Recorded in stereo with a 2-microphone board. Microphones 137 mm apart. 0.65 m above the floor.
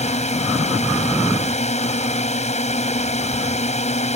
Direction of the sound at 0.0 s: 55° left (ahead or behind).